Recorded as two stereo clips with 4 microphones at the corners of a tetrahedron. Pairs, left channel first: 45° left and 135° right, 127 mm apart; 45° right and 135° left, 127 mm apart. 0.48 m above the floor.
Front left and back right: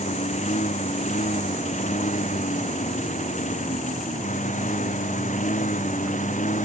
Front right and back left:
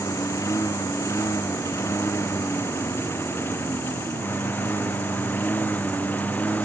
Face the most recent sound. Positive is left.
turn(degrees=35)